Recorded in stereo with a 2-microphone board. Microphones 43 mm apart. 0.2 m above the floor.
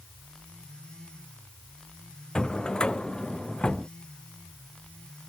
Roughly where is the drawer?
Left.